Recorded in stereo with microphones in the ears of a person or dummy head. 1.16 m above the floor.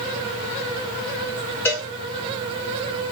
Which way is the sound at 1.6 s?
10° left (ahead or behind).